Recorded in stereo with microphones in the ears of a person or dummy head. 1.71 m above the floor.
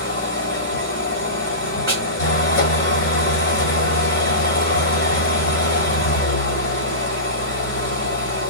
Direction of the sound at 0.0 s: 45° left (ahead or behind).